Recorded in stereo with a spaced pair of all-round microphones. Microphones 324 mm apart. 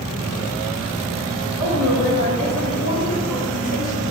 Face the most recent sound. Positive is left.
turn(degrees=70)  # may be behind; listen again after turning